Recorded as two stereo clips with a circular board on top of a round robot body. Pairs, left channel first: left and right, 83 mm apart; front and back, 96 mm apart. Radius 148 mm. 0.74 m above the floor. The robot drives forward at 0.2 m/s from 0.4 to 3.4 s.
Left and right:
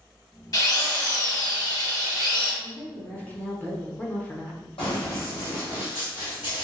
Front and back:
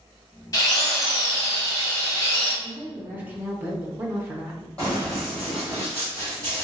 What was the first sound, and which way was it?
A drill, 50° left.